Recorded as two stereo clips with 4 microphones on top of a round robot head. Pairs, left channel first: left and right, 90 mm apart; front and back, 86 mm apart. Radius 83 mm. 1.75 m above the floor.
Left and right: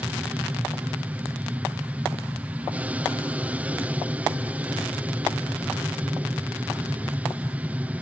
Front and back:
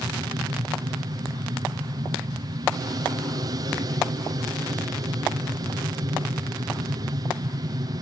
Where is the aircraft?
160° right.